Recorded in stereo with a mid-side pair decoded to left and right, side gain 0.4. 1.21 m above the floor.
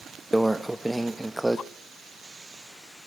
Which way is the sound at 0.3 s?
10° right.